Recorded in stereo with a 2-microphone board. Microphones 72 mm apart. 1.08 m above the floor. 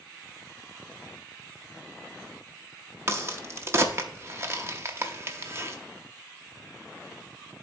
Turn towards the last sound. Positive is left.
turn(degrees=-35)  # may be behind; listen again after turning